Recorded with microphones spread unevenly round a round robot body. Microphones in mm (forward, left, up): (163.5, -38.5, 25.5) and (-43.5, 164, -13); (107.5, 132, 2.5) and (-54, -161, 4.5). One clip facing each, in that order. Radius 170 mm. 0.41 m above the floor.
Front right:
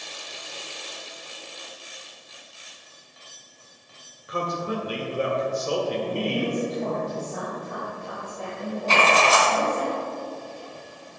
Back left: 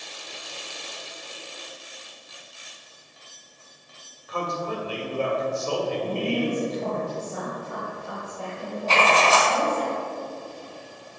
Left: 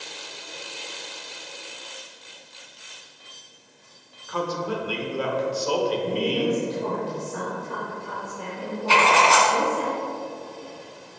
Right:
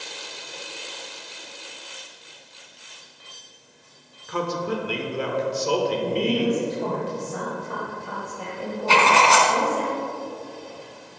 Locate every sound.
4.3 s a man speaking: 115° right, 1.1 m
6.0 s a woman speaking: 140° right, 1.7 m
8.9 s writing: 75° right, 1.4 m